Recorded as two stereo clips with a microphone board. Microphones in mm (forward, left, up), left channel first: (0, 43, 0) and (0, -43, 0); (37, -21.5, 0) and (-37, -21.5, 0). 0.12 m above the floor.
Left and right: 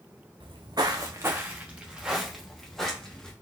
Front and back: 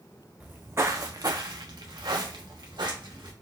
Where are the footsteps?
110° right, 0.7 m; by 3.3 s 170° left, 1.7 m.